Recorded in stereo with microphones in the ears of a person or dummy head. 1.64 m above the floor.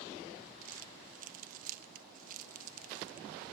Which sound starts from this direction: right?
Crumpling, at 0.6 s.